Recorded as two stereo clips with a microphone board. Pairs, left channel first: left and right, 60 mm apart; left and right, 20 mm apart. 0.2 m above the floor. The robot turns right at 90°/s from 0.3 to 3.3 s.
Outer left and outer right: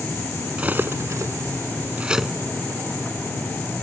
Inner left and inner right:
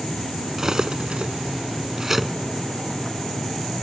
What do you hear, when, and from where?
0.6 s cutlery clinking: 20° right (ahead or behind); by 2.3 s centre (ahead or behind)